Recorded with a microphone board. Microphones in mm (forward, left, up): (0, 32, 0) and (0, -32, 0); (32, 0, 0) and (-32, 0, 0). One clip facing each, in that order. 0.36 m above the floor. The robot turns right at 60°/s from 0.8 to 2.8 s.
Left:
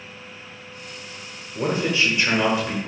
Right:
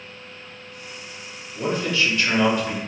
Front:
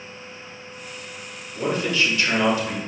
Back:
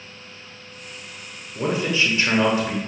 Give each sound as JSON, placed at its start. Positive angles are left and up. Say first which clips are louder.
{"t": 1.6, "sound": "a man speaking", "louder": "left 1 dB, back 1 dB", "azimuth_deg": 110, "distance_m": 0.9}